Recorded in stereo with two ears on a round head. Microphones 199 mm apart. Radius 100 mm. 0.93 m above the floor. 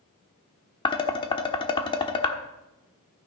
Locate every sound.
0.8 s dishes clattering: 20° left (ahead or behind), 1.2 m